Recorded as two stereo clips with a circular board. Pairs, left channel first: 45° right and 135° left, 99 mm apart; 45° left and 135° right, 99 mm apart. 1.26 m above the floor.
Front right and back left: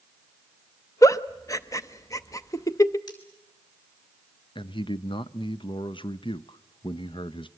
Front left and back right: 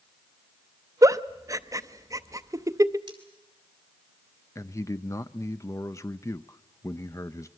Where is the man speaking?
15° right, 0.7 m.